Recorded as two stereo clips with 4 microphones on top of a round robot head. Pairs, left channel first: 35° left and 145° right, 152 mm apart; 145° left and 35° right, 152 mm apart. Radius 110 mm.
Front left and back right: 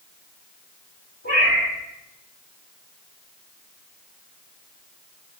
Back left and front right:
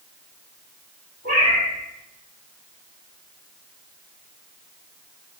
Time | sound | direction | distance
1.2 | a cat meowing | 175° right | 1.9 m